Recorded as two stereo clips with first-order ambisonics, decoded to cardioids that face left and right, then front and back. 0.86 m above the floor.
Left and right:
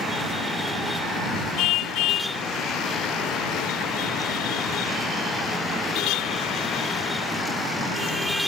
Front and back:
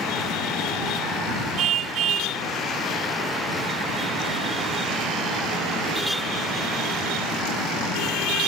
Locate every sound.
1.6 s a car horn: 130° left